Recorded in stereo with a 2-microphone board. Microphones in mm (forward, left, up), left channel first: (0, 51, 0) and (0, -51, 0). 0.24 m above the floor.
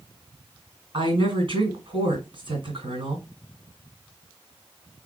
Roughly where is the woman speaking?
Right.